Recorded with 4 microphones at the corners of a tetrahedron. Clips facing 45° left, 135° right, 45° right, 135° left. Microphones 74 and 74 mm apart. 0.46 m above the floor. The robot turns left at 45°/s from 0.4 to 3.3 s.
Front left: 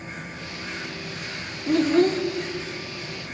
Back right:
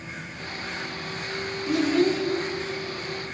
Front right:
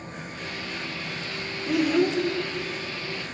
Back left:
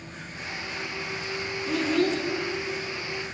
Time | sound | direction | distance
1.7 | a child speaking | 40° left | 0.6 m